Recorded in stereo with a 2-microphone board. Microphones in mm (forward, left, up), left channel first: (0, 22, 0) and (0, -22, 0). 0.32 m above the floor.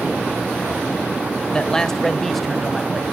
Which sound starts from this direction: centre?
A man speaking, at 1.5 s.